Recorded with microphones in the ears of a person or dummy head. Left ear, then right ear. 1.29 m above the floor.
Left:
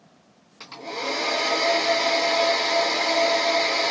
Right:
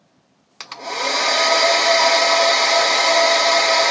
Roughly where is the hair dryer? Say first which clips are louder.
Right 7 dB; right.